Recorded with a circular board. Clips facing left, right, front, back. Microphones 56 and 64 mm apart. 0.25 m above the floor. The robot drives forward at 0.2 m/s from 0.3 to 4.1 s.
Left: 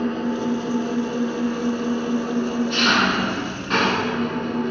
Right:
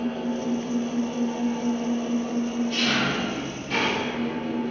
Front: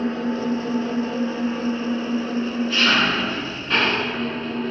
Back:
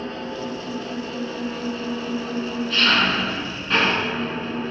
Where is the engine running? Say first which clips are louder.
Left 4 dB, front 6 dB; 65° left, 1.5 m; by 4.7 s 95° left, 1.4 m.